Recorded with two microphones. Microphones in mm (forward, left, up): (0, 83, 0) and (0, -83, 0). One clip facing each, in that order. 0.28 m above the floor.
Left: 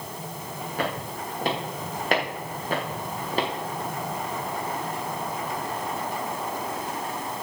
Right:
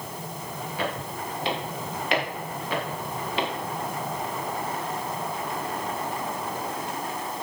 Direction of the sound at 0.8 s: 55° left (ahead or behind).